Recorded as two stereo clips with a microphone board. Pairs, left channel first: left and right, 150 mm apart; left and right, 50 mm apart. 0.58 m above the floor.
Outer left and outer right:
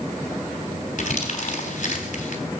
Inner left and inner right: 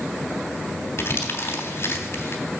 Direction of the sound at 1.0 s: 60° left (ahead or behind).